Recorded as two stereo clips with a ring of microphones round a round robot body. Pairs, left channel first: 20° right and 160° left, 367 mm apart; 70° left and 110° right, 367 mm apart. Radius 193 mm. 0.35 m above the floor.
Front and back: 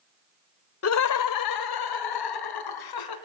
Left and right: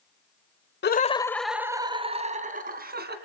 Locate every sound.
0.8 s laughter: 15° left, 1.2 m; by 3.1 s 50° right, 3.5 m